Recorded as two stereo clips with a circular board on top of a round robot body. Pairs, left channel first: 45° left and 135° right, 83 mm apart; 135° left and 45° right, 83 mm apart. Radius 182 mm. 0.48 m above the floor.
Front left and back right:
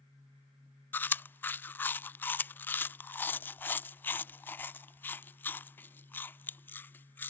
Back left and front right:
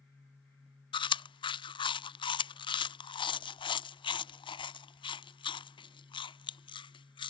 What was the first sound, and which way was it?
Chewing, 115° left.